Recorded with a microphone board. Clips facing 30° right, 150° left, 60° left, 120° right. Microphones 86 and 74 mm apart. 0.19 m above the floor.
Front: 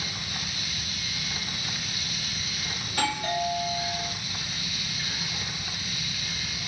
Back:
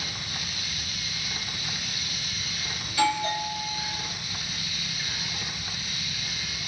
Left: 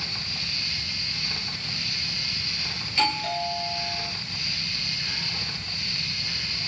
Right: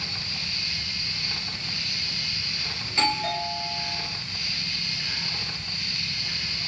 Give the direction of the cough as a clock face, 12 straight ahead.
I don't hear a cough.